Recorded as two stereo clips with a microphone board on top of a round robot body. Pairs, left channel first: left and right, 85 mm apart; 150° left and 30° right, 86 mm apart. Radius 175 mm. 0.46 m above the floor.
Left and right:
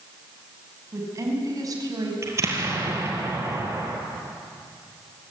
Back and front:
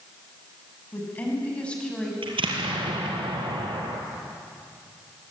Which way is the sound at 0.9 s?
145° right.